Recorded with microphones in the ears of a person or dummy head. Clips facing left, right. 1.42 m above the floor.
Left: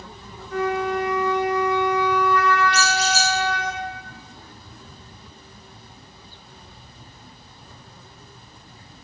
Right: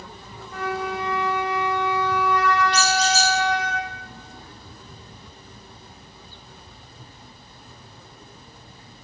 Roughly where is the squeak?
Centre.